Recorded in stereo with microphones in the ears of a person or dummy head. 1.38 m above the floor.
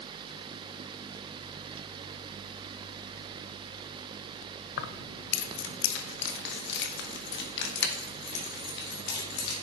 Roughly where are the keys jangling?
Left.